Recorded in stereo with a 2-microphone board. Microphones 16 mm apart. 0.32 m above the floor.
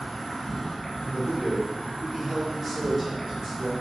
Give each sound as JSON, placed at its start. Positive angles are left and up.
{"t": 0.0, "sound": "an insect", "side_deg": 50, "distance_m": 0.9}
{"t": 1.0, "sound": "a man speaking", "side_deg": -10, "distance_m": 1.4}